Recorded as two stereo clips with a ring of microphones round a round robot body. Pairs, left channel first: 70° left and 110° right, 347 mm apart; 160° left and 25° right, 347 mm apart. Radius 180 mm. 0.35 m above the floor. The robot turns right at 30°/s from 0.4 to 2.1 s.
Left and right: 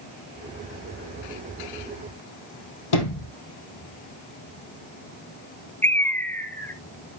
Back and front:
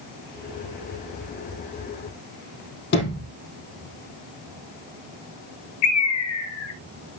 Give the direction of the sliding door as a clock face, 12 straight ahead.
9 o'clock.